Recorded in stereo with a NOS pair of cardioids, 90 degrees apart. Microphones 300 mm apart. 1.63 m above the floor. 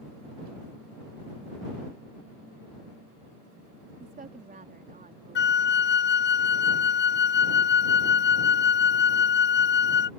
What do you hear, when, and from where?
4.0 s a woman speaking: 30° right
5.3 s a flute: 40° left